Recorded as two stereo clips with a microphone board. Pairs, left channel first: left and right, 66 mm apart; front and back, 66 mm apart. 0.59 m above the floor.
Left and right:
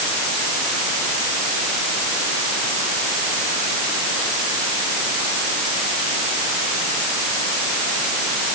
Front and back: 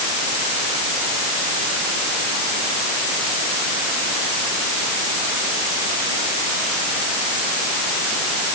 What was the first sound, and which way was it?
Only background noise.